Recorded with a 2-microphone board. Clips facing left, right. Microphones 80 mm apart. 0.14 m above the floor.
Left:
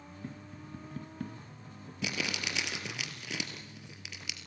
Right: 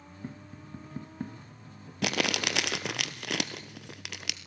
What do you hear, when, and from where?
0.2 s tapping: 25° right (ahead or behind), 1.1 m
2.0 s crumpling: 65° right (ahead or behind), 1.2 m